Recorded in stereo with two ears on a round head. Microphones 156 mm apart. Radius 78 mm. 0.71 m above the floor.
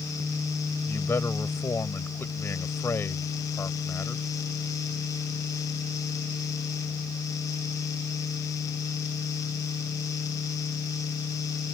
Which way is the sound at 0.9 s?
10° left (ahead or behind).